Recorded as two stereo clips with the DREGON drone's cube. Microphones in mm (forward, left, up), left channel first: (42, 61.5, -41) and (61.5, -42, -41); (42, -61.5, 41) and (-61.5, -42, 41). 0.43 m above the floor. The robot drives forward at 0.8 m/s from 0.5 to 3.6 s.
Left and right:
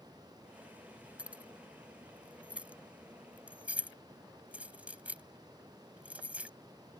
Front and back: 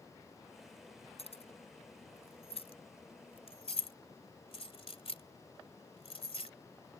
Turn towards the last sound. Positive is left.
turn(degrees=-5)